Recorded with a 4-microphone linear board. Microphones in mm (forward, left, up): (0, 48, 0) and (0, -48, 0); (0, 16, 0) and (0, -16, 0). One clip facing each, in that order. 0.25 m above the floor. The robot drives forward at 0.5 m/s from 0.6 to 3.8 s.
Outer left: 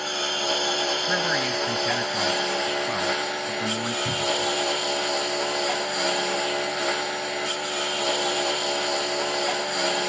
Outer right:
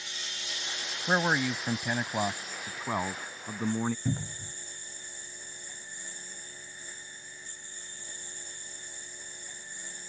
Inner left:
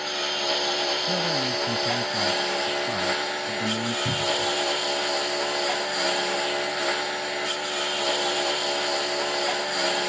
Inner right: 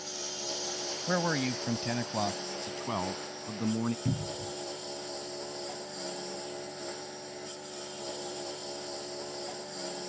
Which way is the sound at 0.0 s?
65° left (ahead or behind).